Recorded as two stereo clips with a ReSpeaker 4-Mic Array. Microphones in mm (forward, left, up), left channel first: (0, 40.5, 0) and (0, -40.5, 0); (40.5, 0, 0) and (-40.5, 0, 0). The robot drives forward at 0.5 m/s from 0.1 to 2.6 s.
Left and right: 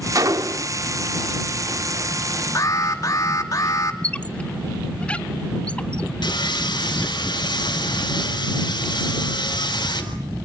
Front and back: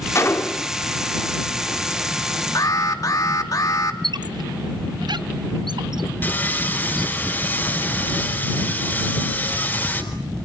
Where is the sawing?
65° left, 3.5 m.